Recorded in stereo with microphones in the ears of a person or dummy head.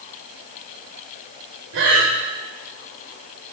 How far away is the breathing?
About 4 m.